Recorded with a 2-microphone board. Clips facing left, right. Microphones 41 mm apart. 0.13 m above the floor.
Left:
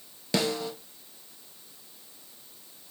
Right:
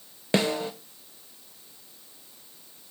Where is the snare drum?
35° right (ahead or behind), 0.8 m.